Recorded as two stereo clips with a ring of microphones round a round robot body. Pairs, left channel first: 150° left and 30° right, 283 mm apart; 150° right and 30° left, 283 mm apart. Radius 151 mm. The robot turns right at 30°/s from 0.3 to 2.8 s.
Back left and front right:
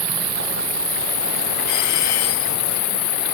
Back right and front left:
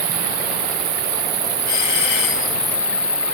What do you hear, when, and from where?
0.0 s an insect: 50° left; by 3.3 s 125° left
1.7 s a doorbell: 175° left; by 2.6 s 160° right